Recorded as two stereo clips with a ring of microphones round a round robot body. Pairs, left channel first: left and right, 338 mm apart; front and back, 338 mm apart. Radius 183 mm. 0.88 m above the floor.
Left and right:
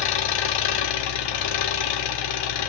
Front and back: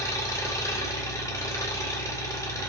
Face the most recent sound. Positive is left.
turn(degrees=80)